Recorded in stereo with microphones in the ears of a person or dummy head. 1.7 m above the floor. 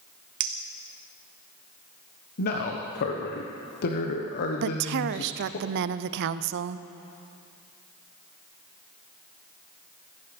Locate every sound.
0.4 s a clink: 30° right (ahead or behind), 0.8 m
2.4 s a man speaking: 55° left (ahead or behind), 1.3 m
4.6 s a woman speaking: 65° right (ahead or behind), 0.6 m